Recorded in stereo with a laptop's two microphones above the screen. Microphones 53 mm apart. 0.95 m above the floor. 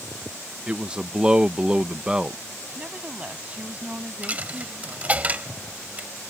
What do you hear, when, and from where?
0.7 s a man speaking: 15° right (ahead or behind)
2.8 s a woman speaking: 25° right (ahead or behind)
4.2 s a dropped coin: 30° right (ahead or behind)